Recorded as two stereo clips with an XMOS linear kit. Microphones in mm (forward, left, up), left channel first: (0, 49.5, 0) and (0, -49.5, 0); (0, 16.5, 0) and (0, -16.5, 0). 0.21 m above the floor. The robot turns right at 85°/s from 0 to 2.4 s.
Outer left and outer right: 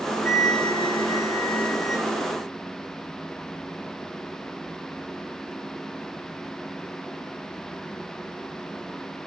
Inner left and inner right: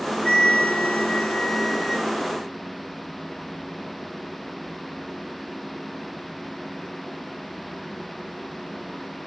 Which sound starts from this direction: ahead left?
A flute, at 0.2 s.